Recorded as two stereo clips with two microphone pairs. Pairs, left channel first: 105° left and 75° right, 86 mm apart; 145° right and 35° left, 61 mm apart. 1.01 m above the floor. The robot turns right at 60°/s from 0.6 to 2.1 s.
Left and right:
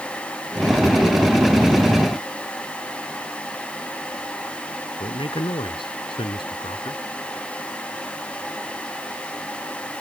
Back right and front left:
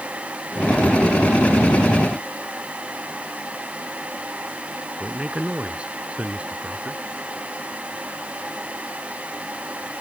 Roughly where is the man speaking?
Left.